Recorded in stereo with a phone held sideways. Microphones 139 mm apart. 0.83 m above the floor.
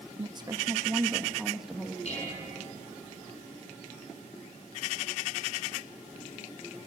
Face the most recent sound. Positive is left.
turn(degrees=50)  # may be behind; listen again after turning